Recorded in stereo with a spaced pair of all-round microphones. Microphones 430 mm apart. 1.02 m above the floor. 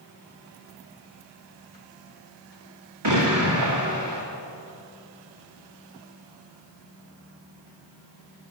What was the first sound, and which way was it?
An explosion, 70° right (ahead or behind).